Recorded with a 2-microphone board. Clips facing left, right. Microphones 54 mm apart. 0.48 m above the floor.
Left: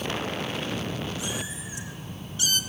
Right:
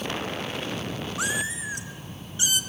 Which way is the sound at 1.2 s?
85° right.